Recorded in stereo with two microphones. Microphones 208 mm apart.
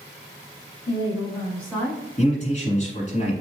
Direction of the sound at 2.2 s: 35° left (ahead or behind).